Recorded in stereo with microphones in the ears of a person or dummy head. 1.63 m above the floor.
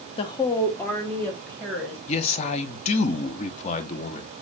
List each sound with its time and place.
0.2 s a woman speaking: 30° left (ahead or behind), 0.5 m; by 2.0 s centre (ahead or behind), 1.5 m
2.1 s a man speaking: 30° left (ahead or behind), 0.6 m